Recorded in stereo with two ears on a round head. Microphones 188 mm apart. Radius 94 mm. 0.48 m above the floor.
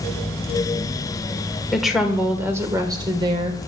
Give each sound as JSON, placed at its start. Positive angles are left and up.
{"t": 1.7, "sound": "a woman speaking", "side_deg": 0, "distance_m": 1.8}